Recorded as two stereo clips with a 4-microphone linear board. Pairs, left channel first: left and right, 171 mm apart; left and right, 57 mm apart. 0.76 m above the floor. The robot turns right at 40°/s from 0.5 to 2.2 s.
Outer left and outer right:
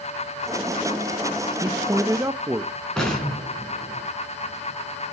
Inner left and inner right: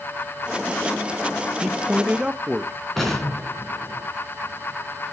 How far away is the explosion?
About 4 m.